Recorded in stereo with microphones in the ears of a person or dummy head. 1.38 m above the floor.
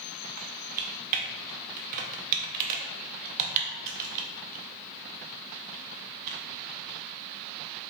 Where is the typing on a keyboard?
45° right (ahead or behind), 0.6 m.